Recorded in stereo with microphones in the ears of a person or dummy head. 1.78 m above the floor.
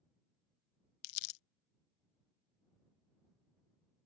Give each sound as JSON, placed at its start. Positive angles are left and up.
{"t": 1.0, "sound": "crumpling", "side_deg": 70}